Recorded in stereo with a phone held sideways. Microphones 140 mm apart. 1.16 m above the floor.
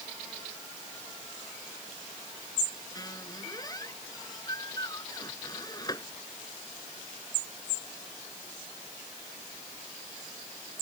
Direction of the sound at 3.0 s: 30° left (ahead or behind).